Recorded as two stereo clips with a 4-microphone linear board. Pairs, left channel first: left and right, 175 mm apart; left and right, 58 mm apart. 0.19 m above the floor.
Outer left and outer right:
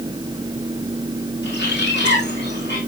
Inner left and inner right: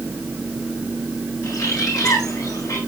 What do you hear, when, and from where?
1.4 s a bird: 85° left, 7 m